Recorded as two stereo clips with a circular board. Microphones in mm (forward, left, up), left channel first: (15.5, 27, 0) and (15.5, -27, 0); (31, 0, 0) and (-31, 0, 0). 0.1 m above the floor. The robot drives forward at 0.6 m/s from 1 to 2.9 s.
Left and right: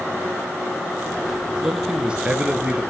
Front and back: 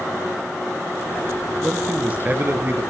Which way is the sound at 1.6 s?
120° right.